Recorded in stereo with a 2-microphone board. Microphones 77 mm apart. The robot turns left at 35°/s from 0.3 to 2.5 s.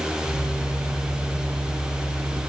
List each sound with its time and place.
Only background noise.